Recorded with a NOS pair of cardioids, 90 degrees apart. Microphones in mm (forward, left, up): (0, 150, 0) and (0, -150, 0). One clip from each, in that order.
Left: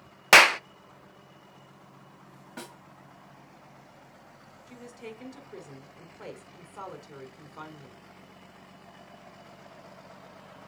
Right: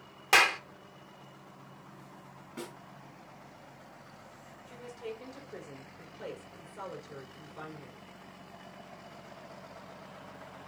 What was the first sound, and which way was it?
A clap, 50° left.